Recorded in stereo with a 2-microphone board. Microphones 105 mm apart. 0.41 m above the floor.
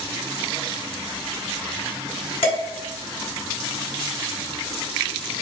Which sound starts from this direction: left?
Dishes clattering, at 2.4 s.